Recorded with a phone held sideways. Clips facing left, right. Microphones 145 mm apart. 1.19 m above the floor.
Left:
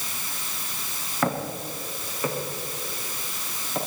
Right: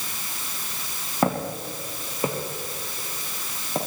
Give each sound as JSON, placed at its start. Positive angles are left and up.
{"t": 1.2, "sound": "footsteps", "side_deg": -25, "distance_m": 4.0}